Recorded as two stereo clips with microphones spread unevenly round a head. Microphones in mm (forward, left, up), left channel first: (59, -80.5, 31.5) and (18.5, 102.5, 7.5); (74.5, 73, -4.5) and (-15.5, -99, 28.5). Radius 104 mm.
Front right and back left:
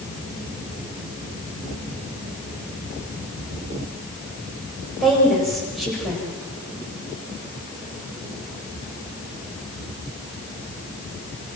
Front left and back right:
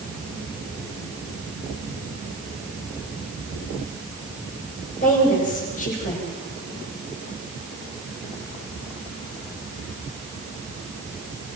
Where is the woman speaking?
10° left, 8 m.